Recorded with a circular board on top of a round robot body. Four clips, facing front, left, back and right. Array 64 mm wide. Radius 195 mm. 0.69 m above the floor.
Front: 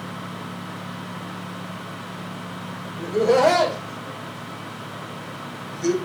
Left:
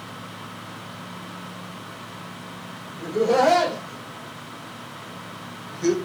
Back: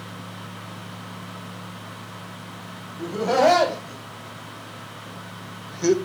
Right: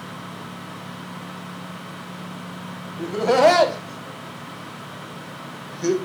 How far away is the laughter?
About 3 m.